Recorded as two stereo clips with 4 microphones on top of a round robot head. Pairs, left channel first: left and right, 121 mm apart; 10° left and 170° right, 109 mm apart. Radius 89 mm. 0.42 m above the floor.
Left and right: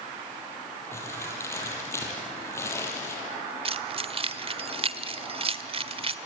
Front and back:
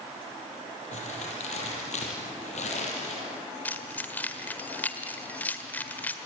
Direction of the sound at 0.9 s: 20° left.